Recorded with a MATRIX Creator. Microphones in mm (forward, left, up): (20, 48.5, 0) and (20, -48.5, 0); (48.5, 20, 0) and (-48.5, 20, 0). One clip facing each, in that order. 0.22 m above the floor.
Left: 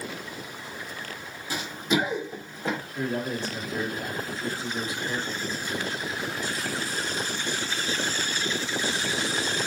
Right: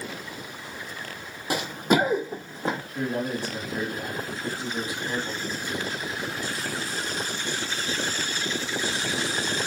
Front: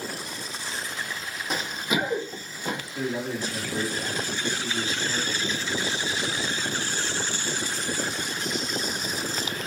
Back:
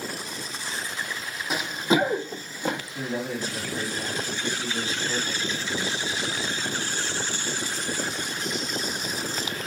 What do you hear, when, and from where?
1.5 s running footsteps: 95° right, 0.5 m; by 2.8 s 150° right, 1.1 m
3.0 s a man speaking: 160° right, 1.4 m